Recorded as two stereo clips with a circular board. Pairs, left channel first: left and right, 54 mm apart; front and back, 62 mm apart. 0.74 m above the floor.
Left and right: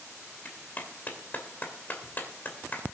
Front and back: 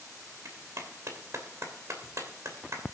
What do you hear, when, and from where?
0.5 s a clap: 145° left, 2.5 m